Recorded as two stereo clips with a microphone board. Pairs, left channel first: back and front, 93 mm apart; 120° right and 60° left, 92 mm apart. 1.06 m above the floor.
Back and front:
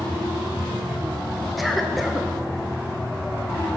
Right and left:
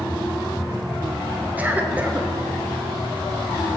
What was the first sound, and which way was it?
A cough, 90° left.